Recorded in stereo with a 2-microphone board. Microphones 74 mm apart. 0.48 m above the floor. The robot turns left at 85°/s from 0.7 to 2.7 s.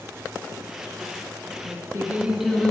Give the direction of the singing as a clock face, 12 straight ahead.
4 o'clock.